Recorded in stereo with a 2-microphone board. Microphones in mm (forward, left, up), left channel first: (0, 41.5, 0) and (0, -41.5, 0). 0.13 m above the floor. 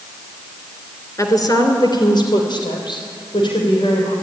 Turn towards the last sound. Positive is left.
turn(degrees=65)  # may be behind; listen again after turning